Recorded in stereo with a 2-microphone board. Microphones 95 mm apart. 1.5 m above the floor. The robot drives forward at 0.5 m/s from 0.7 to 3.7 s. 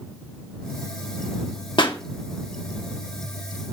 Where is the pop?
55° left (ahead or behind), 1.5 m; by 2.0 s 60° left (ahead or behind), 1.5 m.